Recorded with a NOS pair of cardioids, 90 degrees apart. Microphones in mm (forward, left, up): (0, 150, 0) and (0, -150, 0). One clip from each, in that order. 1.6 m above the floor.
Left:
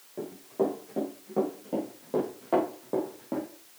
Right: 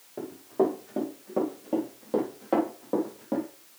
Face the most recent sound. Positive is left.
turn(degrees=-15)